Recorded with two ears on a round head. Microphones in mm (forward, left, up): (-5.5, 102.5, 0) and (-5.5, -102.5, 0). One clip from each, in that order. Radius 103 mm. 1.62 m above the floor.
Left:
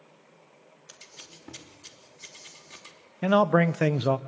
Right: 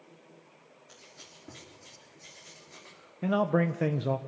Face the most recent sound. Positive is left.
turn(degrees=40)  # may be behind; listen again after turning